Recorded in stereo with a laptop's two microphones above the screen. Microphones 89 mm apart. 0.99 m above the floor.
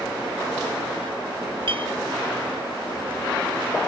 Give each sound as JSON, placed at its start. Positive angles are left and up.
{"t": 1.7, "sound": "a clink", "side_deg": -70, "distance_m": 1.5}